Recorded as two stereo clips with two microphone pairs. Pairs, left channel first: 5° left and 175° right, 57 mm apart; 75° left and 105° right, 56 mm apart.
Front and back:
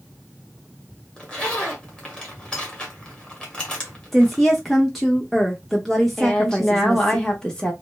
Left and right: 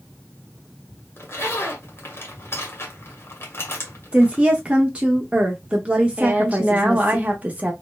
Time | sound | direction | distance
1.2 | a zipper | 75° left | 1.2 m
4.1 | a woman speaking | 80° right | 0.7 m
6.2 | a woman speaking | 65° right | 0.9 m